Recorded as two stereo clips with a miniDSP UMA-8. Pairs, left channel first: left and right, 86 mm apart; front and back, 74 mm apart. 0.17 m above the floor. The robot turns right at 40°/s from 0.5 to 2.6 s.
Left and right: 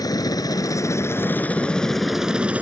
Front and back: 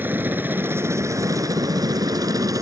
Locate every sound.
0.0 s a helicopter: 120° left; by 2.6 s 160° right